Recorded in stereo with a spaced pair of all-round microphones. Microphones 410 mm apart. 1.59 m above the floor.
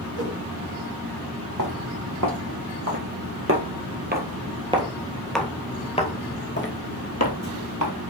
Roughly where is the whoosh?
Right.